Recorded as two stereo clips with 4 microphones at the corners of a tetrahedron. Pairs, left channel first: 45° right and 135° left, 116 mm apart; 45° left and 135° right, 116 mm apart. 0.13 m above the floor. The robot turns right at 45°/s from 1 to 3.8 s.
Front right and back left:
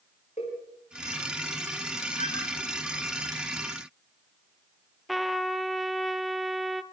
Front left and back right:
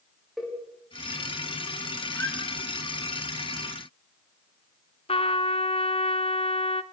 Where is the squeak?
110° left, 9 m; by 2.4 s 125° left, 9 m.